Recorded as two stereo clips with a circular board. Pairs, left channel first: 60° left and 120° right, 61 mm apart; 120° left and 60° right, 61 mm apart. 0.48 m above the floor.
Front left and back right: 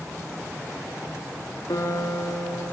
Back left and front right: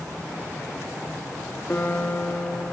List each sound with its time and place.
1.7 s a guitar: 60° left, 8 m